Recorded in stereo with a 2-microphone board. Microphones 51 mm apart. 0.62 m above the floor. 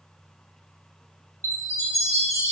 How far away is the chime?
About 1.5 m.